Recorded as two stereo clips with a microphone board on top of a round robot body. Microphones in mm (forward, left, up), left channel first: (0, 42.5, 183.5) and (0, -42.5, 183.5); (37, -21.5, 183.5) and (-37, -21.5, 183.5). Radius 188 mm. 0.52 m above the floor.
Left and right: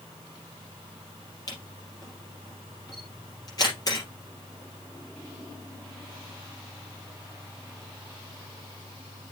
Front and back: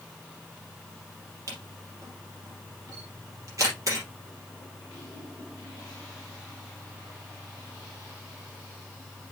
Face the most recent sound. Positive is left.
turn(degrees=135)